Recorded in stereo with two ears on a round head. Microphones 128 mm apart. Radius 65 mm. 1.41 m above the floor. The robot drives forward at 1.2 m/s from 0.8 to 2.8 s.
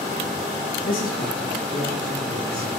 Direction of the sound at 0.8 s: 75° left (ahead or behind).